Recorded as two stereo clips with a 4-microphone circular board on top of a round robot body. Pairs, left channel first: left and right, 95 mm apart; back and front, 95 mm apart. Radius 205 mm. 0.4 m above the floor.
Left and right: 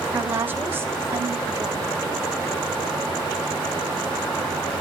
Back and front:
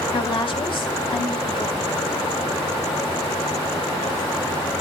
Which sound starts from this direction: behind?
A woman speaking, at 0.1 s.